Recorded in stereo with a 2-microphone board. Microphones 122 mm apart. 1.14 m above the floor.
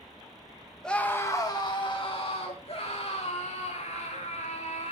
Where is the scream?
5° left (ahead or behind), 1.5 m; by 4.9 s 65° left (ahead or behind), 5.5 m.